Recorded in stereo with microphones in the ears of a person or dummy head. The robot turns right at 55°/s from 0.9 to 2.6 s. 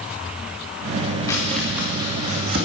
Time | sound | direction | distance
1.3 | chopping | 20° left (ahead or behind) | 2.5 m